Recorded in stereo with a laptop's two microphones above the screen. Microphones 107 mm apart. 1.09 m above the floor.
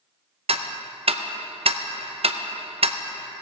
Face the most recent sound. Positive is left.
turn(degrees=-70)  # may be behind; listen again after turning